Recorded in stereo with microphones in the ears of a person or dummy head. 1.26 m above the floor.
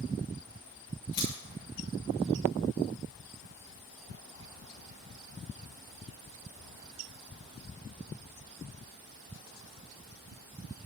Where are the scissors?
40° left (ahead or behind), 4 m.